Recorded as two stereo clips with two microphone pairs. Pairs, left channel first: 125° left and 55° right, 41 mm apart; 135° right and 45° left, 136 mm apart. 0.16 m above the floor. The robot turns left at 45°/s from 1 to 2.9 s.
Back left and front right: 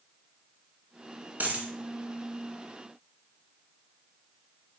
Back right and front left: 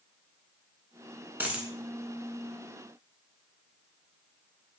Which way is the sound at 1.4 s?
30° right.